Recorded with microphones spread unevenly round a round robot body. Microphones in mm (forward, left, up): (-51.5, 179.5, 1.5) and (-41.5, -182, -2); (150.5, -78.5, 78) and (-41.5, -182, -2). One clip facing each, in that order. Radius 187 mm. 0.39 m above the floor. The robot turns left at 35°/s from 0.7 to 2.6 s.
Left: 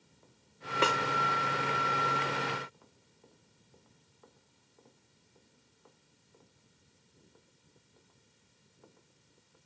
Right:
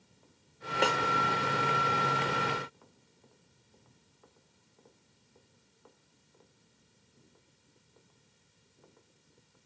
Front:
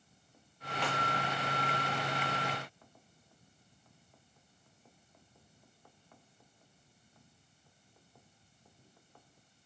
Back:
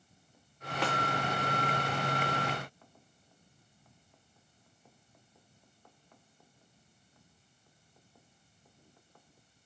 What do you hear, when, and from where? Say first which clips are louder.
0.8 s a snare drum: right 1 dB, back 4 dB; 170° left, 1.6 m; by 1.0 s 165° left, 1.6 m